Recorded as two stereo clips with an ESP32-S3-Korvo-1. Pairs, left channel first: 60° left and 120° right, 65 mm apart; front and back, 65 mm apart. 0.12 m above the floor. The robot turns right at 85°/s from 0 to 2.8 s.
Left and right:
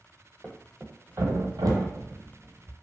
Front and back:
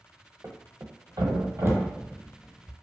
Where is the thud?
125° left, 0.8 m; by 2.8 s 35° right, 0.8 m.